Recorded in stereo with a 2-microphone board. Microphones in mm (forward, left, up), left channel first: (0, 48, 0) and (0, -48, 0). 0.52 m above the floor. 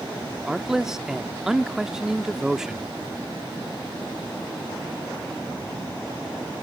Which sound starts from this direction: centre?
A man speaking, at 0.5 s.